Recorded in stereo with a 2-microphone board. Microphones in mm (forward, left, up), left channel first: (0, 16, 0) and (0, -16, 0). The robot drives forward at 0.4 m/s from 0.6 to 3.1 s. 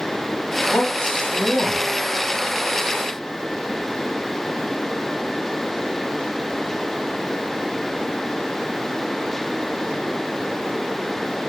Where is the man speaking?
65° left (ahead or behind), 1.6 m; by 1.8 s 75° left (ahead or behind), 1.5 m.